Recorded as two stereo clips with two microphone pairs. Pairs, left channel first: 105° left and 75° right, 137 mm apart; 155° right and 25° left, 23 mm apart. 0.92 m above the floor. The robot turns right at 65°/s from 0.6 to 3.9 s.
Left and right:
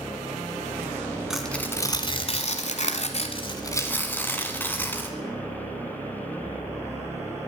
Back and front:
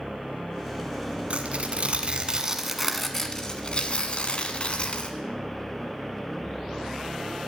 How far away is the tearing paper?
About 1.3 m.